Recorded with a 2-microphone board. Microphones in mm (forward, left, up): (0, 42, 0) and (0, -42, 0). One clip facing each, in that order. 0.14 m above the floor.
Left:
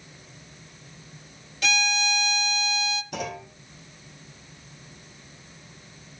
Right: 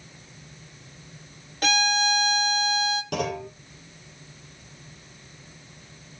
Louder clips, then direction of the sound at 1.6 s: Right 3 dB; 50° right (ahead or behind).